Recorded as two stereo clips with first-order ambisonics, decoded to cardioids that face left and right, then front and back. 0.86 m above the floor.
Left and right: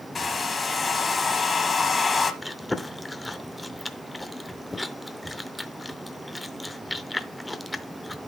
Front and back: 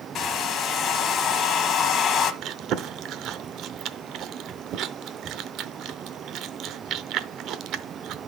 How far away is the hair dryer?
About 0.8 m.